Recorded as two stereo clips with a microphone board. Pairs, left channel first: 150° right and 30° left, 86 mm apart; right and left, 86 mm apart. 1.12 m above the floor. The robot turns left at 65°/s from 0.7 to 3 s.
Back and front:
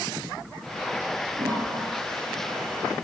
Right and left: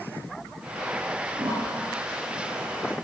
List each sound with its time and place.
1.4 s a toilet flushing: 60° left, 7.5 m; by 2.9 s 45° right, 7.5 m